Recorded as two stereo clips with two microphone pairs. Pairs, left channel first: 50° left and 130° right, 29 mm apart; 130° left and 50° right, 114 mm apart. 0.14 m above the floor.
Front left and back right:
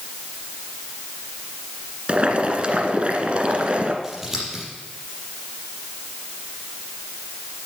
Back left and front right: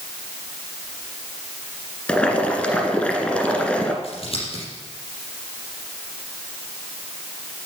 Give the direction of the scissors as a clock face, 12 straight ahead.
7 o'clock.